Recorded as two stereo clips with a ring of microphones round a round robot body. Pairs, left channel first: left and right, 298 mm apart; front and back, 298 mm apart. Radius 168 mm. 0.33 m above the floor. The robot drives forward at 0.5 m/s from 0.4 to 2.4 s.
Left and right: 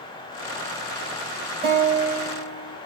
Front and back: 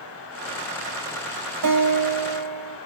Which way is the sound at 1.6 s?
160° right.